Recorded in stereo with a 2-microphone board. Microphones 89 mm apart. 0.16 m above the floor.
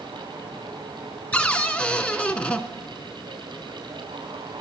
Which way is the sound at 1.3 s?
10° left (ahead or behind).